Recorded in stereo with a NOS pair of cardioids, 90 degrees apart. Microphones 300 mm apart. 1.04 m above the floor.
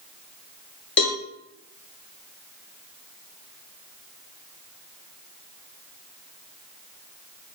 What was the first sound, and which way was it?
A cowbell, 40° left.